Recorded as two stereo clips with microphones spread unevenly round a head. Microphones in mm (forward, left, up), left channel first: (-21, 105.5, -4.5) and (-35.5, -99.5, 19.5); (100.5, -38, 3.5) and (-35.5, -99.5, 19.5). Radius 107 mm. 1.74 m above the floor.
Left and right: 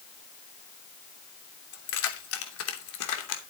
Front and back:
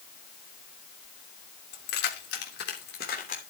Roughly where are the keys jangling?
Ahead left.